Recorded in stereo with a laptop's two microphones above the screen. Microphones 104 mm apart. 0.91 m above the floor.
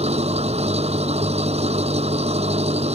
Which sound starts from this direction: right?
An engine running, at 0.0 s.